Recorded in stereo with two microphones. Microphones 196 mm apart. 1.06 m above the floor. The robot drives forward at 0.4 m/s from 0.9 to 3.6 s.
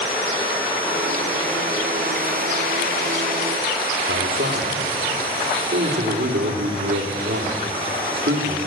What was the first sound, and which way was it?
A man speaking, 70° right (ahead or behind).